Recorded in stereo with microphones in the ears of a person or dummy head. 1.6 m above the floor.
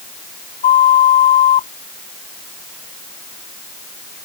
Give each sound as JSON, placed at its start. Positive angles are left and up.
{"t": 0.6, "sound": "a flute", "side_deg": 35}